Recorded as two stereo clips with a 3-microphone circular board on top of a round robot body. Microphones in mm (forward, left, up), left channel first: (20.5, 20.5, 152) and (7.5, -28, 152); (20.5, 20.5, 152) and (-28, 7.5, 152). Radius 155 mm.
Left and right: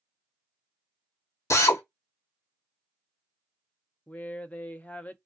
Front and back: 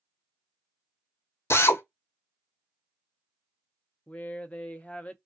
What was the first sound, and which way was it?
A drill, 50° left.